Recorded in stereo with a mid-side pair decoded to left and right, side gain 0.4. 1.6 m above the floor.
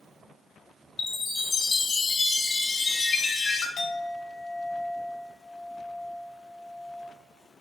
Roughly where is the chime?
Ahead left.